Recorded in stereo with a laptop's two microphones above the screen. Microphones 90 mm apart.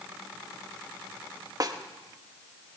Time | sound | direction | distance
1.6 | a snare drum | 45° right (ahead or behind) | 1.0 m